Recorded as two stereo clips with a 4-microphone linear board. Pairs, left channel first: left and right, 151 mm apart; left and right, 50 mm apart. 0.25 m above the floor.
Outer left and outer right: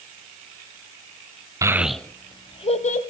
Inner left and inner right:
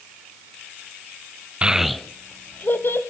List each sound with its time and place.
1.6 s a child speaking: 20° right (ahead or behind), 0.5 m; by 3.0 s 55° left (ahead or behind), 0.8 m